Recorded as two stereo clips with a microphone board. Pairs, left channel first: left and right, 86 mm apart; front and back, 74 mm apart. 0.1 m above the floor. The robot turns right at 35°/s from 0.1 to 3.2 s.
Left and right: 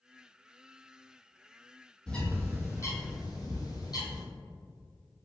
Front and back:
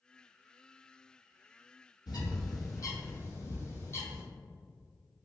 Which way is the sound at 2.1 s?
10° left.